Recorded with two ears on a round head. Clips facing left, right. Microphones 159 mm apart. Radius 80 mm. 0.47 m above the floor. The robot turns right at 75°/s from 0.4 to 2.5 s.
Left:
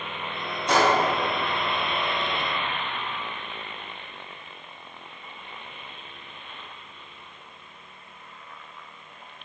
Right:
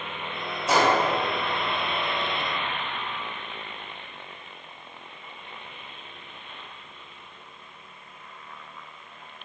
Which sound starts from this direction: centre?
A gunshot, at 0.7 s.